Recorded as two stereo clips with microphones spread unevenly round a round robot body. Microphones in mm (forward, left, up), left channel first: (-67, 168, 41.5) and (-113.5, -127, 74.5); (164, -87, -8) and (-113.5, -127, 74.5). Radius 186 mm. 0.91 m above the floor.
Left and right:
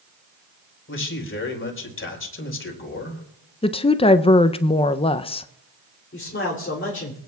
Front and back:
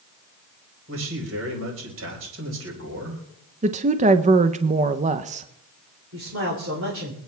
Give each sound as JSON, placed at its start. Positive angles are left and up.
{"t": 0.9, "sound": "a man speaking", "azimuth_deg": 130, "distance_m": 4.0}
{"t": 3.6, "sound": "a woman speaking", "azimuth_deg": 115, "distance_m": 0.5}
{"t": 6.1, "sound": "a man speaking", "azimuth_deg": 130, "distance_m": 3.0}